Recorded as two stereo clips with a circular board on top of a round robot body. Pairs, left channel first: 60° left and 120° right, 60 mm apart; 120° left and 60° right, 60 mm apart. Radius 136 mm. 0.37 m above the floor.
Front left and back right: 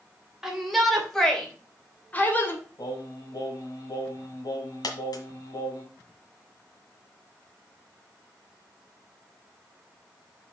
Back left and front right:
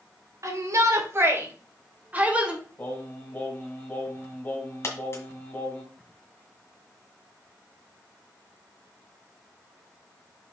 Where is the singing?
60° left, 2.5 m.